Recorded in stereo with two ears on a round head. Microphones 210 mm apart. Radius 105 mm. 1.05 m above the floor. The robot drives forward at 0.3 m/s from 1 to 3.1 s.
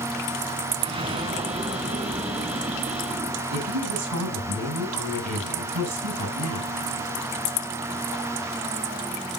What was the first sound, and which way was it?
An explosion, 25° right (ahead or behind).